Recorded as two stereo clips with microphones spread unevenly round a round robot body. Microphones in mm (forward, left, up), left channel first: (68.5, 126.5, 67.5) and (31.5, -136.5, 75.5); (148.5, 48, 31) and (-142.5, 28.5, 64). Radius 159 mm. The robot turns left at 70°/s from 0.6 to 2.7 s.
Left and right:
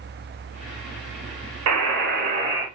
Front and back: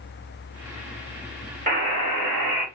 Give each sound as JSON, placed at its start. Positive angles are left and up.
{"t": 1.7, "sound": "a buzzer", "azimuth_deg": -110, "distance_m": 1.2}